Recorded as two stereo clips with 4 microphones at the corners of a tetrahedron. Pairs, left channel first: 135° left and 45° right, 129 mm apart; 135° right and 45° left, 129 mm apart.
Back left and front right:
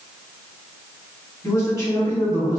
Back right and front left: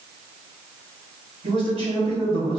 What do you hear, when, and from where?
1.4 s a man speaking: 75° left, 1.7 m